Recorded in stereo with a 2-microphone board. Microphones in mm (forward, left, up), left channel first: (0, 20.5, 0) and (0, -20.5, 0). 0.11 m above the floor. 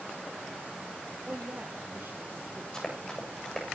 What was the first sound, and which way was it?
A woman speaking, 45° right (ahead or behind).